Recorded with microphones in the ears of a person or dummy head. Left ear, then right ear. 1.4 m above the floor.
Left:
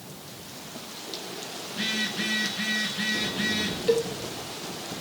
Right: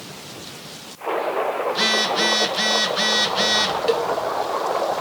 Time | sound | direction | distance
1.7 | a phone buzzing | 50° right (ahead or behind) | 1.7 m
3.9 | a cowbell | 25° right (ahead or behind) | 1.0 m